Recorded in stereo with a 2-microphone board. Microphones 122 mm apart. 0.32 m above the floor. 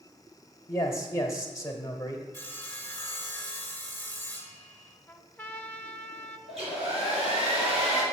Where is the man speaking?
25° left (ahead or behind), 0.9 m.